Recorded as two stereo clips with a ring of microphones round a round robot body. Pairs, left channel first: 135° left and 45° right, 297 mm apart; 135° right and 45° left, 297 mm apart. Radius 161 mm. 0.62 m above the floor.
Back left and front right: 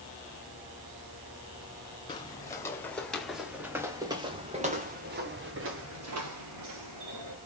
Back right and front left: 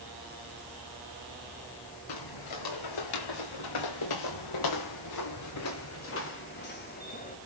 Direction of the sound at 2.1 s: 150° right.